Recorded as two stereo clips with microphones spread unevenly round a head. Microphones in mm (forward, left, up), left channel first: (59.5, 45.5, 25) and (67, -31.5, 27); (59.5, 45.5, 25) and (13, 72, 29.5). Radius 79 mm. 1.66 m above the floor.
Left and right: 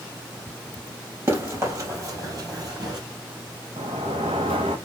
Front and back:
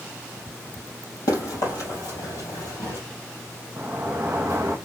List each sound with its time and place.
1.3 s running footsteps: 35° right, 3.5 m; by 3.0 s 65° right, 3 m
3.8 s a sliding door: 135° right, 0.7 m